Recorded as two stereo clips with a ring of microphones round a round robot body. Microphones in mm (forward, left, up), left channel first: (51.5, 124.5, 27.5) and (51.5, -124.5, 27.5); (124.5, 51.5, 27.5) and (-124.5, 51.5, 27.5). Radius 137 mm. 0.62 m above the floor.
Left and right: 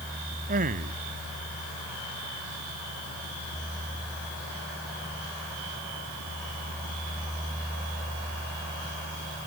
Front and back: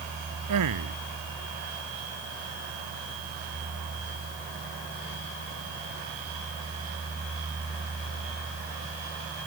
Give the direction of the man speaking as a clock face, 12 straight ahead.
5 o'clock.